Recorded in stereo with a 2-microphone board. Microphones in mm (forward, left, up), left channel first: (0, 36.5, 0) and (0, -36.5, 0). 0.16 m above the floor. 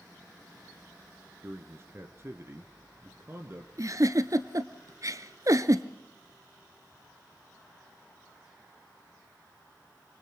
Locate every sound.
1.4 s a man speaking: 35° right (ahead or behind), 1.9 m
3.8 s a giggle: 50° right (ahead or behind), 1.2 m